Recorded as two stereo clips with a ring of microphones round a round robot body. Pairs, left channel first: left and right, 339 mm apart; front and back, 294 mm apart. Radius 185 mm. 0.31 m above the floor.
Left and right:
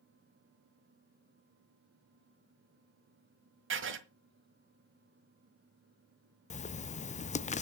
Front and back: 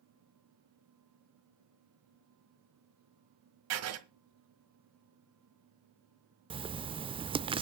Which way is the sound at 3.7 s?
145° right.